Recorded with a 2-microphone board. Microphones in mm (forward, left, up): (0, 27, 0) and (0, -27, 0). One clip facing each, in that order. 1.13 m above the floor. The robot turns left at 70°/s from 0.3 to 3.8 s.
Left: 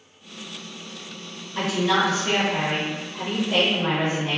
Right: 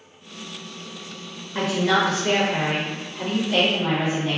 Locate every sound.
1.6 s a woman speaking: 65° right, 0.8 m; by 4.4 s 135° left, 0.8 m